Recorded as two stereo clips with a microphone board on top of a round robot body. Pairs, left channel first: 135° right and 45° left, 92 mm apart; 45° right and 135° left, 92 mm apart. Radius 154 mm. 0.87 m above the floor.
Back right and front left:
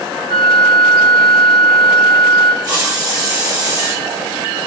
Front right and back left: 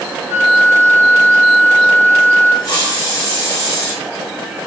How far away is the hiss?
About 1.1 m.